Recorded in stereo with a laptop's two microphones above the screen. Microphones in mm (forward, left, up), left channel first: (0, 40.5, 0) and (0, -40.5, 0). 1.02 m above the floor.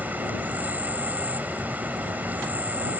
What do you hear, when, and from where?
0.0 s an insect: 20° right (ahead or behind)